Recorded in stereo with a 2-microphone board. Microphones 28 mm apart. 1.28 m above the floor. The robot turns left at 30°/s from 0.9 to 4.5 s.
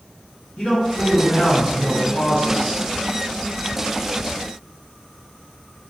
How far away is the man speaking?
About 1.7 m.